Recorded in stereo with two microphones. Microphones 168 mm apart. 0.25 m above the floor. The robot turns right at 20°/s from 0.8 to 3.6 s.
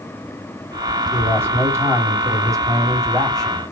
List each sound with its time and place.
1.1 s a man speaking: 15° right (ahead or behind), 1.6 m; by 3.6 s 20° right (ahead or behind), 1.6 m